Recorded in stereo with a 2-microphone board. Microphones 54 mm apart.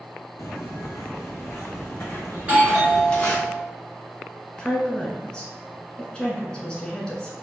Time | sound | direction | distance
0.4 | footsteps | 65° left (ahead or behind) | 1.4 m
2.4 | a doorbell | 30° right (ahead or behind) | 1.6 m
4.6 | a woman speaking | 15° left (ahead or behind) | 1.0 m